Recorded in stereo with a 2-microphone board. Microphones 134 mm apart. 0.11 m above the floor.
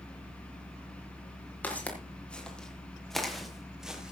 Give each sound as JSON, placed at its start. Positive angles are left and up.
{"t": 1.6, "sound": "footsteps", "side_deg": 10, "distance_m": 5.0}